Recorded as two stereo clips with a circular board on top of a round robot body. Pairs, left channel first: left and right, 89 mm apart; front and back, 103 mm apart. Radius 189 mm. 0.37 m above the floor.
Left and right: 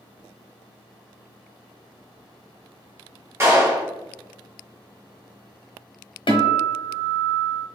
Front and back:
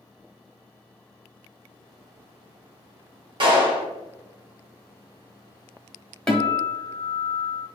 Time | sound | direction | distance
3.4 | a clap | 145° right | 1.6 m
6.3 | a guitar | 85° left | 1.1 m